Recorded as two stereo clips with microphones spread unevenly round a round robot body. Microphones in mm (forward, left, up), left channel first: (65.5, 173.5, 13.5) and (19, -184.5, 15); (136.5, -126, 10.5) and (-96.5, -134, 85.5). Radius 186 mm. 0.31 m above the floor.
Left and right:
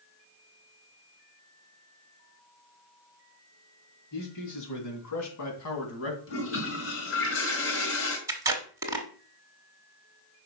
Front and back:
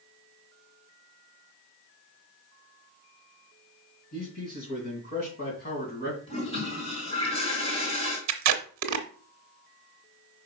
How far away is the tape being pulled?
About 0.9 m.